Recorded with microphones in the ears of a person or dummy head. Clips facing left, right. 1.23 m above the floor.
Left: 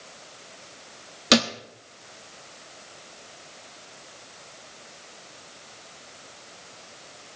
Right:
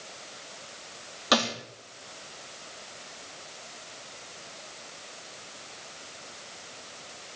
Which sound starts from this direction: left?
A thud, at 1.3 s.